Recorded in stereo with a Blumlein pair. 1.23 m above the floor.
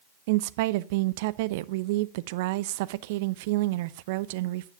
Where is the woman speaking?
50° right, 0.5 m.